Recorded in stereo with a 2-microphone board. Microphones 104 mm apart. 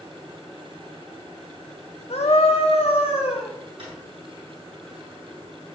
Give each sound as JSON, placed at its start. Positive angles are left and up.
{"t": 2.1, "sound": "a scream", "side_deg": 80, "distance_m": 1.9}
{"t": 3.8, "sound": "a drawer", "side_deg": -55, "distance_m": 6.5}